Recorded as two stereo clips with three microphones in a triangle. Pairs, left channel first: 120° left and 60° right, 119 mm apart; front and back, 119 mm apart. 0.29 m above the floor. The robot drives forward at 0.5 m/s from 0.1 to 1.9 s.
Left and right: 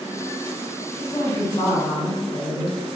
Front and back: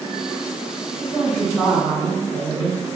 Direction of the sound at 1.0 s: 60° left.